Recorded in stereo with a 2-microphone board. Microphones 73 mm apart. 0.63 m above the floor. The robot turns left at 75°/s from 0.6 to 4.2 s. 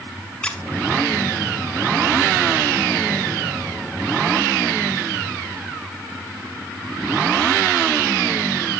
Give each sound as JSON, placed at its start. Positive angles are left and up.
{"t": 0.4, "sound": "a squeak", "side_deg": 15, "distance_m": 0.7}